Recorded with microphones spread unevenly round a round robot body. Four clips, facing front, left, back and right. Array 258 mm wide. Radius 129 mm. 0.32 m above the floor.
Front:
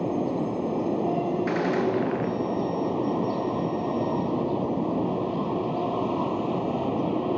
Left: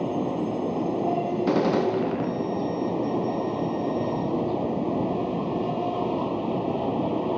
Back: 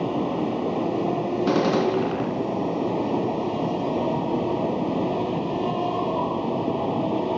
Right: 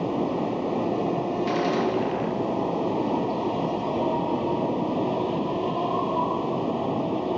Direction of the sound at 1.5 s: 135° left.